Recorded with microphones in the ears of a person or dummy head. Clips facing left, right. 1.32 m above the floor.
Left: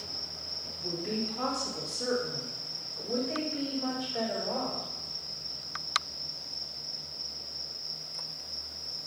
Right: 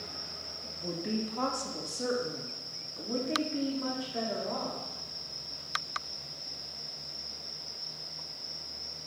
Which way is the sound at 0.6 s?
80° right.